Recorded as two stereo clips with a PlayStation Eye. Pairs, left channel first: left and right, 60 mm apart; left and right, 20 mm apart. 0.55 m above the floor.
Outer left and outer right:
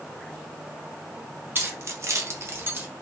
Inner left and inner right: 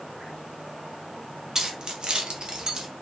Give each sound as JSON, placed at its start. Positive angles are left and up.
{"t": 1.6, "sound": "keys jangling", "side_deg": -35, "distance_m": 0.6}